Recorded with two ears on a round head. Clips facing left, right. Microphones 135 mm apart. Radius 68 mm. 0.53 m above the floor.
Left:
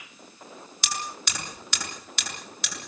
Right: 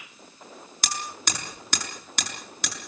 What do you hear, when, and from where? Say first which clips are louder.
0.8 s hammering: right 1 dB; 40° right (ahead or behind), 6.5 m